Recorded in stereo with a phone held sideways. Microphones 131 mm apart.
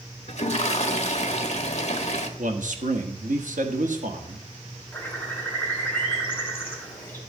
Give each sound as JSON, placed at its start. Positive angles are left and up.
{"t": 0.3, "sound": "a toilet flushing", "side_deg": 55, "distance_m": 1.1}
{"t": 2.4, "sound": "a man speaking", "side_deg": -70, "distance_m": 1.2}
{"t": 4.9, "sound": "a bird", "side_deg": 15, "distance_m": 3.5}